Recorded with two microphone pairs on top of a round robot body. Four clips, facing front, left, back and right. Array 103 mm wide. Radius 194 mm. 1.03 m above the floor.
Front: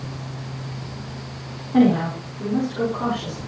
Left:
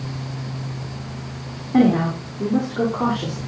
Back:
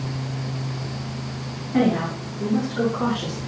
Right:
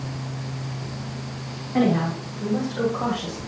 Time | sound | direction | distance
1.7 | a woman speaking | 85° left | 4.5 m